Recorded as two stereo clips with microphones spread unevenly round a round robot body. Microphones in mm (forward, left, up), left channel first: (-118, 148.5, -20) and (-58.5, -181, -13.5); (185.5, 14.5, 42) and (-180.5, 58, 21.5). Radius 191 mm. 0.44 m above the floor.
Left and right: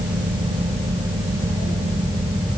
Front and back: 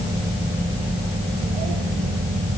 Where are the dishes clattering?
No dishes clattering in this recording.